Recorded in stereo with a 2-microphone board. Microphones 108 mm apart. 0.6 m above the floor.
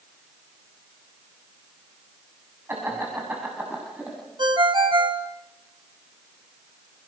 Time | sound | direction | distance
2.7 | laughter | 20° right (ahead or behind) | 5.5 m
4.4 | a ringtone | 45° right (ahead or behind) | 2.5 m